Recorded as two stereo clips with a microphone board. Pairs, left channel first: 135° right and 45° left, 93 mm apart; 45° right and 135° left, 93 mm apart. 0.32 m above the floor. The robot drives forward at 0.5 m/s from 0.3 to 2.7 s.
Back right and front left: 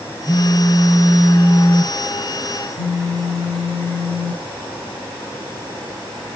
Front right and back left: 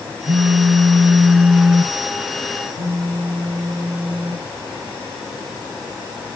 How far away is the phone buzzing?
About 0.5 m.